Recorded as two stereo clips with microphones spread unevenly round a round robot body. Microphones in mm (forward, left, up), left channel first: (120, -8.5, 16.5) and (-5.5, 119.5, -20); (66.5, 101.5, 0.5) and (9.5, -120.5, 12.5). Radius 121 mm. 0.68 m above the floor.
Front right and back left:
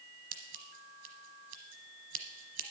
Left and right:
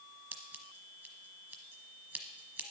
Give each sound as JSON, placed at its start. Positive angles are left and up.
{"t": 0.3, "sound": "scissors", "azimuth_deg": 175, "distance_m": 1.0}